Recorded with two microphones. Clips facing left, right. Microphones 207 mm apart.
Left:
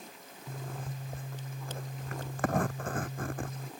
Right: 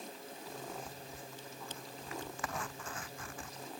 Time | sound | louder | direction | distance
0.5 | a zipper | left 4 dB | 55° left (ahead or behind) | ?